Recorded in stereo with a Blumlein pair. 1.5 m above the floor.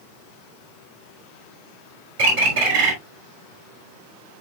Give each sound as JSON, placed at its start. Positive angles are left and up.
{"t": 2.2, "sound": "a bird", "azimuth_deg": -50, "distance_m": 3.5}